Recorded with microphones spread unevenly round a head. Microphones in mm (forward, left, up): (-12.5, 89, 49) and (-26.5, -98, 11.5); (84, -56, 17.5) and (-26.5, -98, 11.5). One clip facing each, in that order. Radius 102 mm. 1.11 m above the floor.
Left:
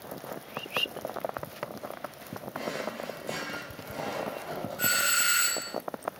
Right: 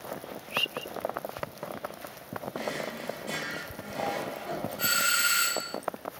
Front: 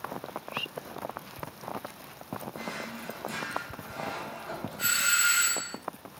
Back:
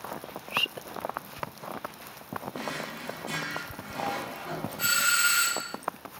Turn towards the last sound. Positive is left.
turn(degrees=160)